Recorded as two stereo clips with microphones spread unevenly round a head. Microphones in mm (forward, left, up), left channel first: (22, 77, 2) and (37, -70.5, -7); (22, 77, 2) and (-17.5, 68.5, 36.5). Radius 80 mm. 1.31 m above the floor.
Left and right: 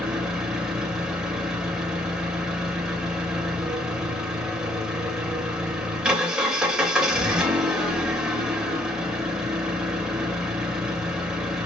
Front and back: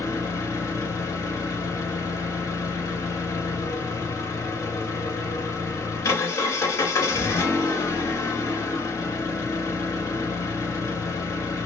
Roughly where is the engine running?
Ahead.